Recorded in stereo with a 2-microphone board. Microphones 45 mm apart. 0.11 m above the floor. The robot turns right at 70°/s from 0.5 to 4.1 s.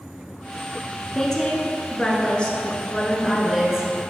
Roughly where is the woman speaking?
Centre.